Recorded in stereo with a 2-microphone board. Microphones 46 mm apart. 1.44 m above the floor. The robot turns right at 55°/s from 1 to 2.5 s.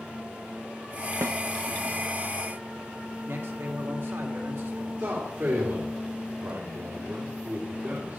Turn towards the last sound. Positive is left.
turn(degrees=-65)  # may be behind; listen again after turning